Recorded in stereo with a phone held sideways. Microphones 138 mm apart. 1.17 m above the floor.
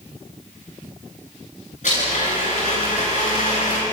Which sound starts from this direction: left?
A blender, at 1.8 s.